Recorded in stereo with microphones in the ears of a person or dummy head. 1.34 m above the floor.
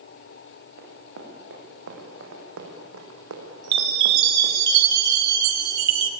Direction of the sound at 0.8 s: 55° right (ahead or behind).